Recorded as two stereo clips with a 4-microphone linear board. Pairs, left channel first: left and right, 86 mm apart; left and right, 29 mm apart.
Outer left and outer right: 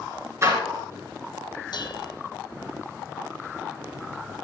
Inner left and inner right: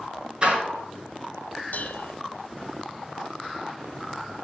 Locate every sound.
0.4 s a door slam: 35° right (ahead or behind), 3.5 m
1.7 s dishes clattering: 60° left (ahead or behind), 1.2 m